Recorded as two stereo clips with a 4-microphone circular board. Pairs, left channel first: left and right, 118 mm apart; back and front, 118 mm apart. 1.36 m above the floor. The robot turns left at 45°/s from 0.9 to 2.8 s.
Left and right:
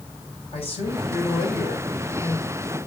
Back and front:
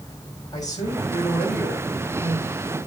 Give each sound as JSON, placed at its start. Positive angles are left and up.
{"t": 0.5, "sound": "a man speaking", "azimuth_deg": 120, "distance_m": 6.0}